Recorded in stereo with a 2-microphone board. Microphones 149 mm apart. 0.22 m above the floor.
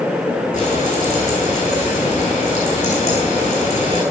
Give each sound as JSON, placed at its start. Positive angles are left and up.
{"t": 0.5, "sound": "frying", "side_deg": 50, "distance_m": 7.5}